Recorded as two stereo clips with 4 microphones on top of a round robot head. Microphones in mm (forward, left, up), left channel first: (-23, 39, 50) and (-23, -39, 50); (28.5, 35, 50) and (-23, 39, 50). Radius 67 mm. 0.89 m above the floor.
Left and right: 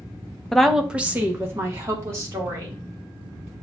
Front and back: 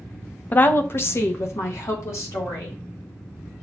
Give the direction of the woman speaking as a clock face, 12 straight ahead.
12 o'clock.